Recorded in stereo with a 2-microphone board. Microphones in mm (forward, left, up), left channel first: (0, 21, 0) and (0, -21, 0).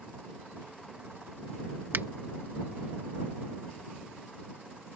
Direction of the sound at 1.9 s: 55° right (ahead or behind).